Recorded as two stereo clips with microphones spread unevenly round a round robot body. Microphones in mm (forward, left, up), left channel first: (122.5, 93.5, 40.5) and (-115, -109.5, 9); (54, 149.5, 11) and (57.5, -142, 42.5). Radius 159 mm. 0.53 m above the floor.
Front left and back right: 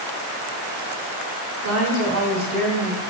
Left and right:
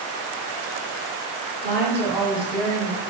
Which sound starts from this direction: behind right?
A woman speaking, at 1.6 s.